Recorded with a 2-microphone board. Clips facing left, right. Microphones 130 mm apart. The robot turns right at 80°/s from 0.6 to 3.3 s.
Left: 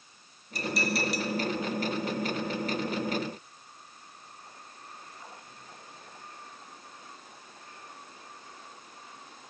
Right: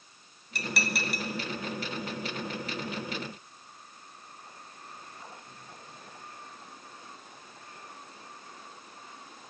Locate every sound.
0.6 s dishes clattering: 70° right (ahead or behind), 2 m; by 1.3 s 45° right (ahead or behind), 2 m